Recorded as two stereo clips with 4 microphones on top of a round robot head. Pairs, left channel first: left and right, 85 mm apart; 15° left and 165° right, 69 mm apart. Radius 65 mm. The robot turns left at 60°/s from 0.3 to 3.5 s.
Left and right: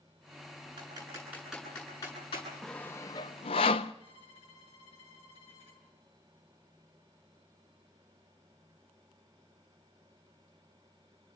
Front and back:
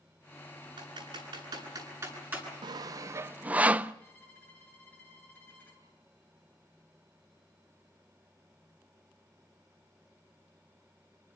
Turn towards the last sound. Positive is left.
turn(degrees=80)